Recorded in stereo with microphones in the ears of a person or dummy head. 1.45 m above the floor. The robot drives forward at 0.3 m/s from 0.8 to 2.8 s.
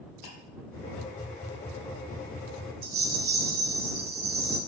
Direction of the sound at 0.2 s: 55° left (ahead or behind).